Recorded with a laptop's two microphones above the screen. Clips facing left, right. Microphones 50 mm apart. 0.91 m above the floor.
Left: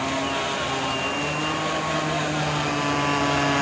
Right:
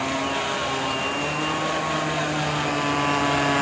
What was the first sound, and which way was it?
A motorcycle, 5° right (ahead or behind).